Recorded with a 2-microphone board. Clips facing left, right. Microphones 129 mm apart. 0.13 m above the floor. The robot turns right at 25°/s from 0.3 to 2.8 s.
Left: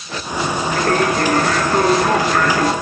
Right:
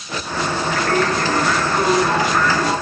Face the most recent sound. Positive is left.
turn(degrees=100)